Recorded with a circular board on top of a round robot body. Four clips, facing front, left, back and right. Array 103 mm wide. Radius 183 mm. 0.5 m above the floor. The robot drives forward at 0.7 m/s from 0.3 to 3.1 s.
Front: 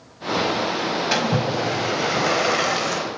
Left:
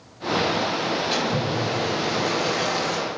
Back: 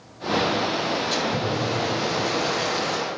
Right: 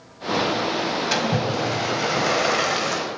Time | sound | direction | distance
1.1 | a splash | 30° right | 3.5 m